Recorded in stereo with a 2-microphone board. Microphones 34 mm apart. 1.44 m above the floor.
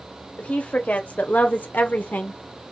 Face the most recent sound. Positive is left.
turn(degrees=65)  # may be behind; listen again after turning